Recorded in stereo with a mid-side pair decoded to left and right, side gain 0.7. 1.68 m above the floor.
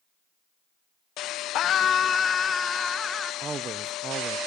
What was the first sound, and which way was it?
A scream, 50° left.